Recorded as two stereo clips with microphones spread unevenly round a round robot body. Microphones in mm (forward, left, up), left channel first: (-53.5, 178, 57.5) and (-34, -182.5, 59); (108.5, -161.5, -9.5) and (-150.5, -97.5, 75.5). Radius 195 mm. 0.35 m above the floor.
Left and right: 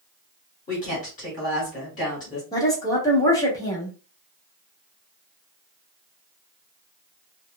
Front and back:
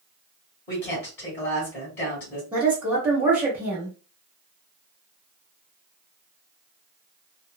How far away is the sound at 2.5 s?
About 1.1 m.